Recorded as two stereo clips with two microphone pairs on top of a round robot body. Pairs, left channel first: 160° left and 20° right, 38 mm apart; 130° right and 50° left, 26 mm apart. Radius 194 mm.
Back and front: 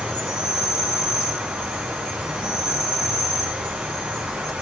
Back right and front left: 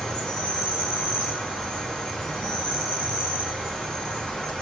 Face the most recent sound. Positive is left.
turn(degrees=-80)